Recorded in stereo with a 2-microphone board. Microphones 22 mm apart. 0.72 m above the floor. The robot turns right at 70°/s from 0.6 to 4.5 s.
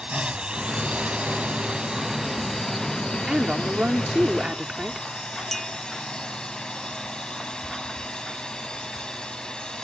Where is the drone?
135° right; by 9.8 s 135° left.